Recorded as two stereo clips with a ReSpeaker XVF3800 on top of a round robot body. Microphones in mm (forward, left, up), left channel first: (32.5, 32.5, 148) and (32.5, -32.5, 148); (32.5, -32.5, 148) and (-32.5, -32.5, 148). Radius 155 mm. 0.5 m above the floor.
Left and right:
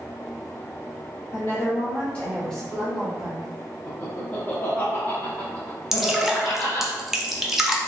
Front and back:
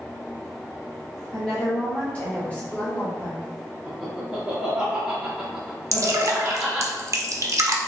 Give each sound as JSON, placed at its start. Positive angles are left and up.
{"t": 1.3, "sound": "a woman speaking", "azimuth_deg": 70, "distance_m": 1.5}
{"t": 3.9, "sound": "laughter", "azimuth_deg": 110, "distance_m": 1.1}
{"t": 5.9, "sound": "dripping", "azimuth_deg": -170, "distance_m": 0.7}